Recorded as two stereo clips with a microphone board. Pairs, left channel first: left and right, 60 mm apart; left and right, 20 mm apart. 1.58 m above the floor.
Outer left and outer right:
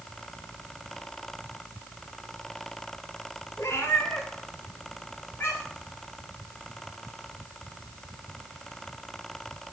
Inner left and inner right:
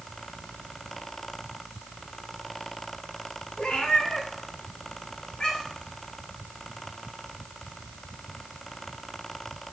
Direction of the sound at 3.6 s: 50° left (ahead or behind).